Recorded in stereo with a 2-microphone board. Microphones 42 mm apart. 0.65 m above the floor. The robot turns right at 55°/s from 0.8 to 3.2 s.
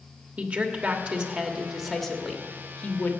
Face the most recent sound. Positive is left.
turn(degrees=65)